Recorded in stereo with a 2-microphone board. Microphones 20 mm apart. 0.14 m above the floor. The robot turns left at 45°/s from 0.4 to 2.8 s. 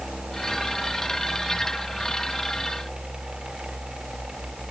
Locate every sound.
Only background noise.